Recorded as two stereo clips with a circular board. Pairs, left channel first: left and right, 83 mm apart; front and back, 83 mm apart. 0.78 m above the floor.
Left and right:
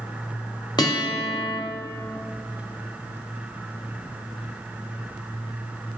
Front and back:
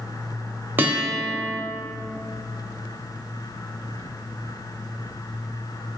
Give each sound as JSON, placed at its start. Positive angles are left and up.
{"t": 0.8, "sound": "a guitar", "azimuth_deg": 115, "distance_m": 1.1}